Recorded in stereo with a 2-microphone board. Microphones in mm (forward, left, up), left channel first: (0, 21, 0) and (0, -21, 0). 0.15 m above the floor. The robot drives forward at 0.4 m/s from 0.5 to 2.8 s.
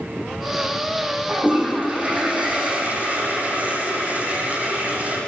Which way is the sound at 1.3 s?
35° right (ahead or behind).